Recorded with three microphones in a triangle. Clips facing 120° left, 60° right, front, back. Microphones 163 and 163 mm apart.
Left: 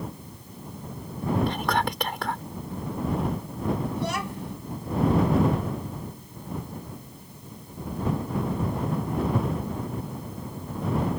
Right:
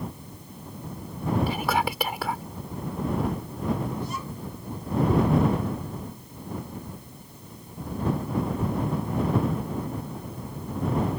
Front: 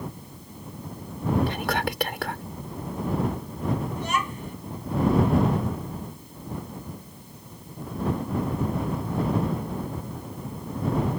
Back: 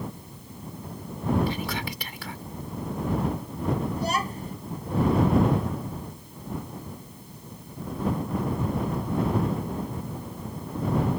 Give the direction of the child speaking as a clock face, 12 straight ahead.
8 o'clock.